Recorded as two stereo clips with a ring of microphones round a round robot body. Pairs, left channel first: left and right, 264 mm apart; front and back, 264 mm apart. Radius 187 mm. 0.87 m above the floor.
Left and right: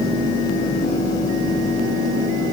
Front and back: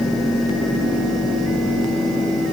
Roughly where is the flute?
I don't hear a flute.